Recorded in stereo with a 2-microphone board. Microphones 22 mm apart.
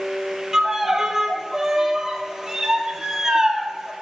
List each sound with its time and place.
0.5 s a violin: 20° right (ahead or behind), 1.3 m